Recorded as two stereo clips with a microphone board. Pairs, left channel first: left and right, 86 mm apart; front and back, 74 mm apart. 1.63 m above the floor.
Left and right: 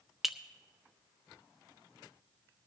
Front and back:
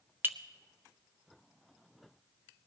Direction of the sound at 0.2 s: 175° right.